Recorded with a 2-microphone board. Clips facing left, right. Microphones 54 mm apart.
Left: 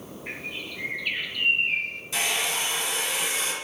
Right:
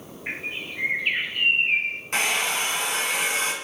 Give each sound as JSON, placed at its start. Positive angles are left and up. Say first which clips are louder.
{"t": 0.3, "sound": "a bird", "louder": "right 4 dB", "side_deg": -35, "distance_m": 0.7}
{"t": 2.1, "sound": "a hair dryer", "louder": "right 3 dB", "side_deg": -55, "distance_m": 1.9}